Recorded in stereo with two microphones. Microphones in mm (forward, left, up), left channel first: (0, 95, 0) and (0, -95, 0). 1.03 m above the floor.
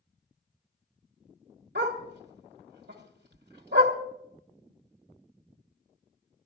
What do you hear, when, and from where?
1.8 s a dog barking: 70° right (ahead or behind), 1.5 m